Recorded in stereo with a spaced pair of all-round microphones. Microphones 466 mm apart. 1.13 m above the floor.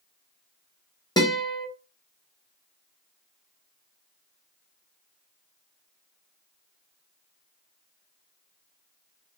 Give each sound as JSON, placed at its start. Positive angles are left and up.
{"t": 1.2, "sound": "a guitar", "side_deg": 10, "distance_m": 0.7}